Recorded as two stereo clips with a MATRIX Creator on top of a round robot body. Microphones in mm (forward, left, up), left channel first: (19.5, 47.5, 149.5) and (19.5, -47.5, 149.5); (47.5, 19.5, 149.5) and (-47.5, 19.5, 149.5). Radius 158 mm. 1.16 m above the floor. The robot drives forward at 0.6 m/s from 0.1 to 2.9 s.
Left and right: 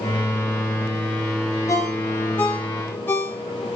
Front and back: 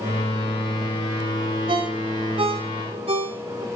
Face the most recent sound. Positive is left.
turn(degrees=160)